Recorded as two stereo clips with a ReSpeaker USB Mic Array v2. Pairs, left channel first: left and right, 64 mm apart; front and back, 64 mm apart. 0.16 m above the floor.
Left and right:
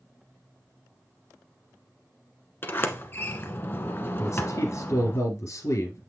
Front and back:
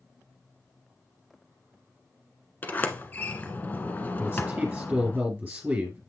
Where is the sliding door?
55° left, 1.0 m.